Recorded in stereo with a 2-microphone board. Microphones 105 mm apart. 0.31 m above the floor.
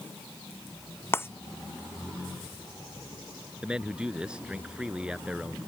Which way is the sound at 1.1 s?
20° left (ahead or behind).